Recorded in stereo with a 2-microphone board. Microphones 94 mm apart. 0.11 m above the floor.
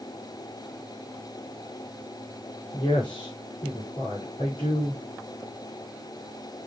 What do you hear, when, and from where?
2.7 s a woman speaking: 50° left (ahead or behind), 5.5 m